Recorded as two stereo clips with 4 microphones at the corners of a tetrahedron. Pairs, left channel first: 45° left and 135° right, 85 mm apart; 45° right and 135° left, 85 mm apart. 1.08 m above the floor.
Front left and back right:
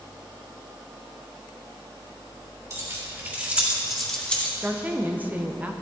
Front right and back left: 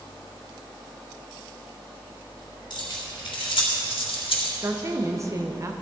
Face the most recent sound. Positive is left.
turn(degrees=160)